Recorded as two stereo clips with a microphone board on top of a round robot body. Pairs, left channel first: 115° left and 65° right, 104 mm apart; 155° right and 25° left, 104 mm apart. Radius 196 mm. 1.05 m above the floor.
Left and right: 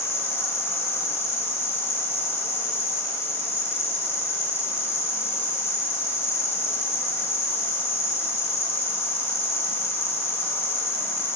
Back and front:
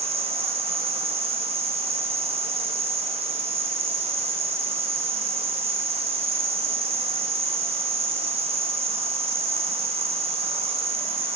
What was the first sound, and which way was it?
An insect, 45° left.